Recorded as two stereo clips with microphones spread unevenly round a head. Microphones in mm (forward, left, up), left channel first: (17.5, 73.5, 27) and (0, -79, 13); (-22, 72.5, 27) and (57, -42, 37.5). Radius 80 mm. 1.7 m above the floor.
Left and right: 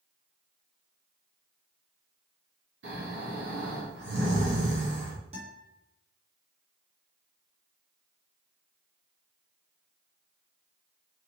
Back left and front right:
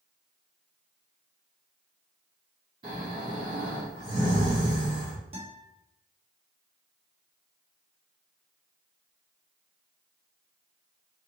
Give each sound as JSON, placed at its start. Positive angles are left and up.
{"t": 2.8, "sound": "snoring", "azimuth_deg": -115, "distance_m": 2.0}
{"t": 5.3, "sound": "a guitar", "azimuth_deg": -60, "distance_m": 1.4}